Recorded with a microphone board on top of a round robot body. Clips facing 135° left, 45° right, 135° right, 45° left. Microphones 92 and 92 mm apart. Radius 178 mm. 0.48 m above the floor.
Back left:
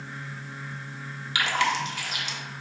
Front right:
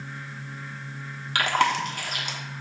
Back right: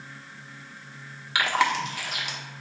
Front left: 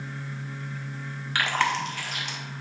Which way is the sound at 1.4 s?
55° right.